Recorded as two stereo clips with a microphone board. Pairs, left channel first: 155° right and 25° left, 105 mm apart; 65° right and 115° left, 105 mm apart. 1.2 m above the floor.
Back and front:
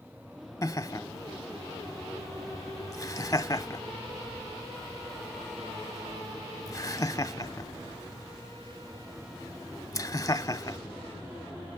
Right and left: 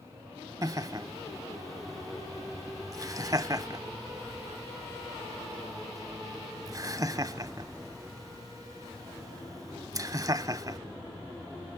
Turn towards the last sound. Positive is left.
turn(degrees=155)